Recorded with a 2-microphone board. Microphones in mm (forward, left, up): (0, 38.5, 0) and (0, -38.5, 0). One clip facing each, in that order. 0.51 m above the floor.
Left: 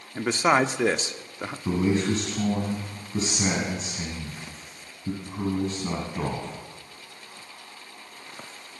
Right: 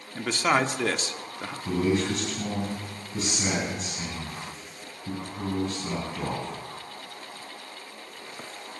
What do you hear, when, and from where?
0.1 s a man speaking: 20° left (ahead or behind), 0.6 m
1.6 s a man speaking: 30° left (ahead or behind), 3.5 m